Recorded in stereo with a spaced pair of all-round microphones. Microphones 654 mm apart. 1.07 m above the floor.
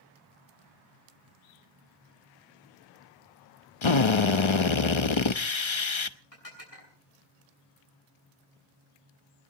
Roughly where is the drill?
Left.